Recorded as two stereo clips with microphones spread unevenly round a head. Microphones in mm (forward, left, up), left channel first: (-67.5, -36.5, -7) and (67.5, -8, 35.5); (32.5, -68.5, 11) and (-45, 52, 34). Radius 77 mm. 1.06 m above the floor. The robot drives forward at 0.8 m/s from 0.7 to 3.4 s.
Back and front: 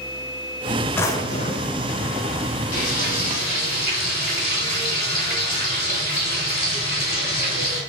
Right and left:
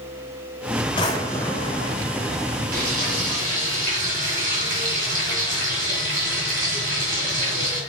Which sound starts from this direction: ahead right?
A drawer, at 1.0 s.